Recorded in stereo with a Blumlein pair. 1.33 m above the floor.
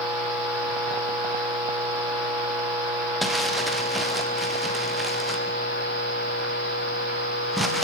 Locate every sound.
3.2 s crumpling: 5° right, 0.9 m